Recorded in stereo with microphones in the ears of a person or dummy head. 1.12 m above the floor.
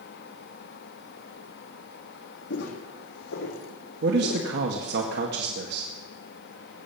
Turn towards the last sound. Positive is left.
turn(degrees=-60)  # may be behind; listen again after turning